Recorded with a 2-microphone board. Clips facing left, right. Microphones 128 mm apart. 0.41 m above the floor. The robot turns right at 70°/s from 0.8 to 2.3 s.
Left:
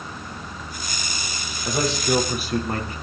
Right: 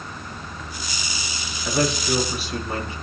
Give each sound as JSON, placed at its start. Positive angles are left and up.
{"t": 1.6, "sound": "a man speaking", "azimuth_deg": 15, "distance_m": 7.5}